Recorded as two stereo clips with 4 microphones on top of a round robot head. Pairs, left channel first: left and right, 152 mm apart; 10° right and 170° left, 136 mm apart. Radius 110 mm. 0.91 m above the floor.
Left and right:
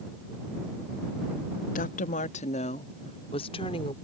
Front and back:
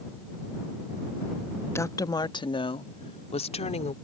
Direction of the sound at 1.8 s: 60° left.